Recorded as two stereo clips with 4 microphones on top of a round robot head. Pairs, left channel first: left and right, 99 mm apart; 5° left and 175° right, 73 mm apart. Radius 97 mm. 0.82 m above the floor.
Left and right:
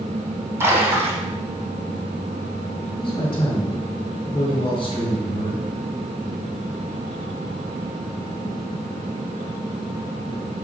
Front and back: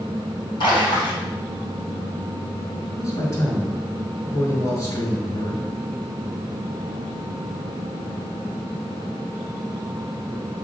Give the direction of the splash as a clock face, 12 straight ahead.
1 o'clock.